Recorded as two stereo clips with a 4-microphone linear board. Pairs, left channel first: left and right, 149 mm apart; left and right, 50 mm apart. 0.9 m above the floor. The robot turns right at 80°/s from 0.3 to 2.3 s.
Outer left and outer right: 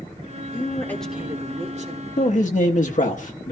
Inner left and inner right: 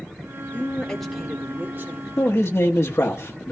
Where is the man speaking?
50° left (ahead or behind), 1.1 m; by 3.5 s 60° left (ahead or behind), 1.1 m.